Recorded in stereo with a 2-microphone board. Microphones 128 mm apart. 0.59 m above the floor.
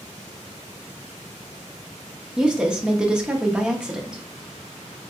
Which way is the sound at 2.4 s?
5° right (ahead or behind).